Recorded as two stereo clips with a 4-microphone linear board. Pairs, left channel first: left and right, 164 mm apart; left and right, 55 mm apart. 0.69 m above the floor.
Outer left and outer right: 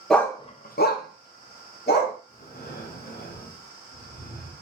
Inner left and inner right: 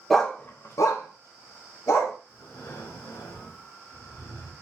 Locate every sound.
0.1 s a dog barking: centre (ahead or behind), 0.6 m; by 2.2 s 70° left (ahead or behind), 1.6 m
2.3 s breathing: 65° left (ahead or behind), 0.8 m